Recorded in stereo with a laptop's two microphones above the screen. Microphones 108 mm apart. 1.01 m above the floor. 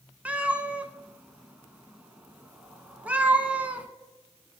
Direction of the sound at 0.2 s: 15° right (ahead or behind).